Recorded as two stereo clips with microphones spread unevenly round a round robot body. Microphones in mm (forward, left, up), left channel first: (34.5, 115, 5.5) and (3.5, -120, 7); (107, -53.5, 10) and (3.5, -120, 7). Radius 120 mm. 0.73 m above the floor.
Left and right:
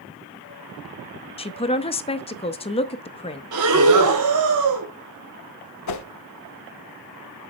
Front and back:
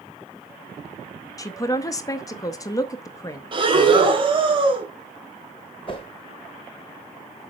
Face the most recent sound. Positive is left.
turn(degrees=100)